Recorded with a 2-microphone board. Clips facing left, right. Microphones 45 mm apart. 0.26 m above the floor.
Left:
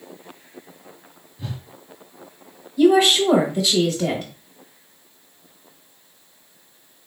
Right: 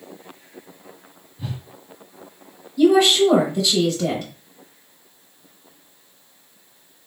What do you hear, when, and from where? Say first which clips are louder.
1.4 s a whoosh: right 1 dB; 10° right (ahead or behind), 0.7 m
2.8 s a woman speaking: right 1 dB; 10° left (ahead or behind), 1.0 m